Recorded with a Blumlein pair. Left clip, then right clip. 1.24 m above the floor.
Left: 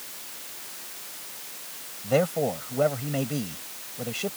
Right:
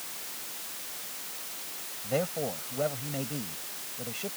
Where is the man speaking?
70° left.